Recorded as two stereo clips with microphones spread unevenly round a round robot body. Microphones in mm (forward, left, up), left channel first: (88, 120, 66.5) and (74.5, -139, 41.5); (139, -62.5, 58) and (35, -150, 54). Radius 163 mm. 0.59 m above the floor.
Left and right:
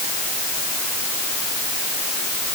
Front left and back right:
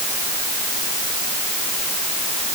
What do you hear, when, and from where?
Only background noise.